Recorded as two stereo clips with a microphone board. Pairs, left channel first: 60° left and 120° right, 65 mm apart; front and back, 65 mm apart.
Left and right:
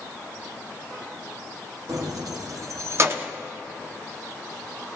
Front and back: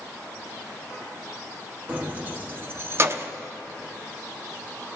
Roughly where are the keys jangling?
Behind right.